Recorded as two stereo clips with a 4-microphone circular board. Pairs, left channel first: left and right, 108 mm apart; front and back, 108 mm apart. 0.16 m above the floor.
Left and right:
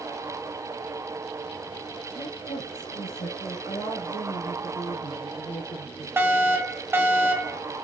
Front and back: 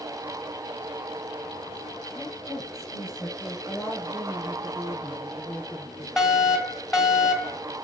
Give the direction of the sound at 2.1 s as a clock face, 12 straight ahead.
9 o'clock.